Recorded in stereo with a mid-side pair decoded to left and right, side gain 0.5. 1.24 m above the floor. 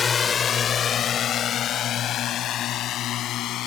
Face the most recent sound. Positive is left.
turn(degrees=70)